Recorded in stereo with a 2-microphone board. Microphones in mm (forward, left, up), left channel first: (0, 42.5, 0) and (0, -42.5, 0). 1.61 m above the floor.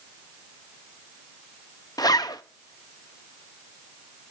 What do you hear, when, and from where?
2.0 s a zipper: 55° left (ahead or behind), 0.7 m